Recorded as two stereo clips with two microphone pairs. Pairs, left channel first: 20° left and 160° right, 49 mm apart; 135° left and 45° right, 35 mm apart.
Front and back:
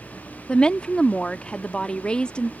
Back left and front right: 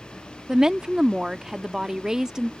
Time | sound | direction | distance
0.5 | a woman speaking | 5° right | ?